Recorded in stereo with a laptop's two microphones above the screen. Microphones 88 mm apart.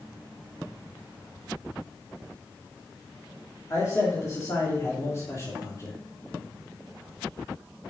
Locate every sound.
3.7 s a man speaking: 35° left (ahead or behind), 2 m